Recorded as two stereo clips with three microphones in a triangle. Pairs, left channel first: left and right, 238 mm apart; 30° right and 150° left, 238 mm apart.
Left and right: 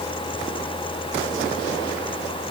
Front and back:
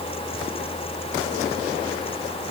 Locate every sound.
Only background noise.